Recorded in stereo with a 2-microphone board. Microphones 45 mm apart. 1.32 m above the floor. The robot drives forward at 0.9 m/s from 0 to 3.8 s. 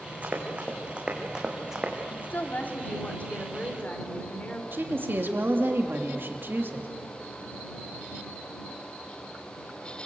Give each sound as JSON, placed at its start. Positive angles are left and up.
{"t": 0.2, "sound": "running footsteps", "side_deg": -30, "distance_m": 4.5}
{"t": 2.1, "sound": "a woman speaking", "side_deg": 45, "distance_m": 2.5}
{"t": 4.7, "sound": "a woman speaking", "side_deg": -50, "distance_m": 3.0}